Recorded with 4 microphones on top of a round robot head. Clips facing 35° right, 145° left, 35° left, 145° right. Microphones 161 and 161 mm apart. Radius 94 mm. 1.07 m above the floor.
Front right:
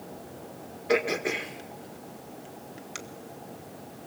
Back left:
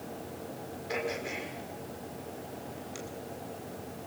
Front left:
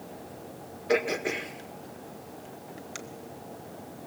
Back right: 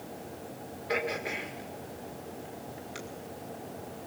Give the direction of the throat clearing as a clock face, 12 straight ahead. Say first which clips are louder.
Front right 9 dB, front left 6 dB; 12 o'clock.